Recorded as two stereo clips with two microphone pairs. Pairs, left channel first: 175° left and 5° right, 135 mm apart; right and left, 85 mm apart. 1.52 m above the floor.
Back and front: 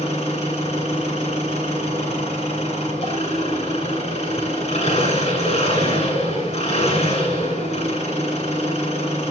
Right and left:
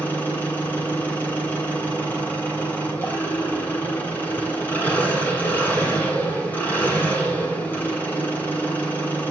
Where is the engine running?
160° right, 7 m.